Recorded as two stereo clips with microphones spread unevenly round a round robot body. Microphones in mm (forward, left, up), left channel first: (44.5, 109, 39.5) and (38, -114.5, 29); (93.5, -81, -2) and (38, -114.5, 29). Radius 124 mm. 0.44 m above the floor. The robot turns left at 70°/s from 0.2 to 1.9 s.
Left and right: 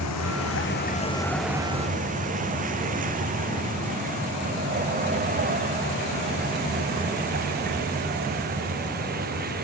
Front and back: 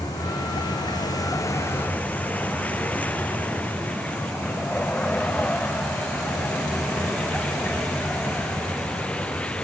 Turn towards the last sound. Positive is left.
turn(degrees=-45)